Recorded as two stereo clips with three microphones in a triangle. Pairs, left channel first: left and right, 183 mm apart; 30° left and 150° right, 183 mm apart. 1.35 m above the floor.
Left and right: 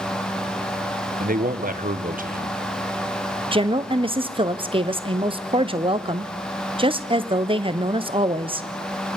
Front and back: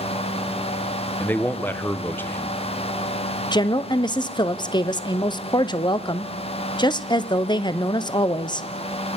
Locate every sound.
1.2 s a man speaking: 50° right, 0.9 m
3.5 s a woman speaking: 35° right, 0.7 m